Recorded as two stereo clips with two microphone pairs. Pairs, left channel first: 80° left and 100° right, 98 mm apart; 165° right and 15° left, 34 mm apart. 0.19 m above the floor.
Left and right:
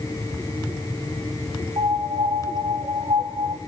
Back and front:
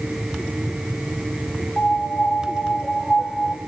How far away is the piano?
About 1.6 m.